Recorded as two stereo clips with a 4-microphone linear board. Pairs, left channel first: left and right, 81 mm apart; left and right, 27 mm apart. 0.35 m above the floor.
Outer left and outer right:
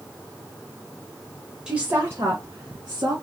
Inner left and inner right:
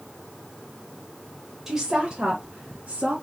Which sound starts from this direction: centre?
A woman speaking, at 1.7 s.